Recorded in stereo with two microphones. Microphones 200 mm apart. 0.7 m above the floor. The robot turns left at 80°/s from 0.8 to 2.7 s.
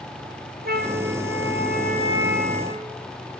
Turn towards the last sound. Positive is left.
turn(degrees=155)